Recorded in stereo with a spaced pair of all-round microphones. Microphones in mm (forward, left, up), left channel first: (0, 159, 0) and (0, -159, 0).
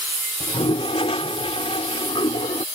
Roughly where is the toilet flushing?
Centre.